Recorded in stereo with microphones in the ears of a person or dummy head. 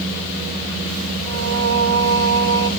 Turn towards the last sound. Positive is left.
turn(degrees=-60)  # may be behind; listen again after turning